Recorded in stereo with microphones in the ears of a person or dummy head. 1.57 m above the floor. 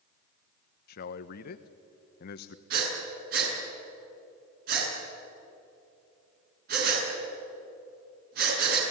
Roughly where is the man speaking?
Left.